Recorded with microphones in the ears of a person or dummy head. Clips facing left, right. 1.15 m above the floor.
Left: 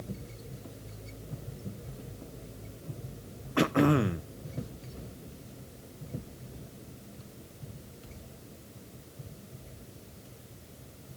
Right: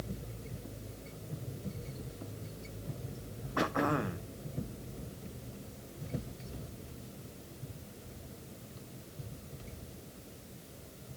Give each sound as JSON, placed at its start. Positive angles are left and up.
{"t": 3.6, "sound": "throat clearing", "side_deg": 35, "distance_m": 0.6}